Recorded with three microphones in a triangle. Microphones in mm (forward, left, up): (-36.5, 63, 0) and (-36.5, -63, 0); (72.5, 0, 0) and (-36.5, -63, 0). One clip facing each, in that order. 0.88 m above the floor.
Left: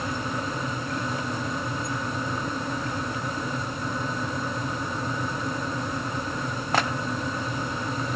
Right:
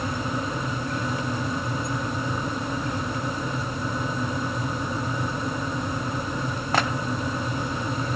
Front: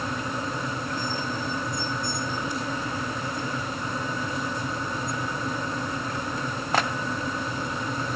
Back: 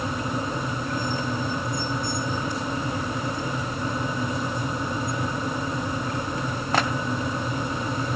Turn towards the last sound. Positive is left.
No sound to turn to.